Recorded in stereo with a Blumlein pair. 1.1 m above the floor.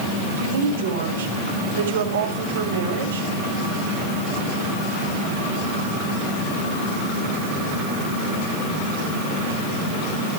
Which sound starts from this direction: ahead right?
A woman speaking, at 0.3 s.